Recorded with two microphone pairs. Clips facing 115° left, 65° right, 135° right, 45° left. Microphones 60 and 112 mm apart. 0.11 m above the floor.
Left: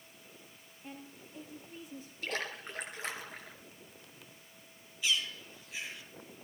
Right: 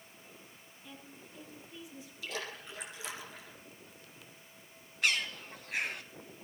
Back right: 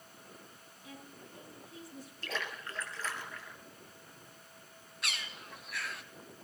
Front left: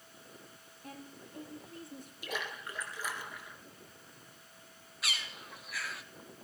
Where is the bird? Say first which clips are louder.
Right 2 dB, front left 1 dB; 40° right, 0.9 m.